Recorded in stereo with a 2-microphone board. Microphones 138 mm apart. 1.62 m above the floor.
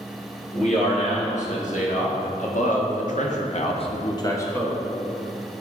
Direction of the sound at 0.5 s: 55° left (ahead or behind).